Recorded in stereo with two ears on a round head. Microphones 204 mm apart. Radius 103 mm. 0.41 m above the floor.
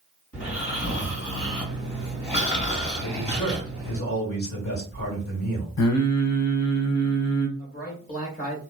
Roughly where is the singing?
Left.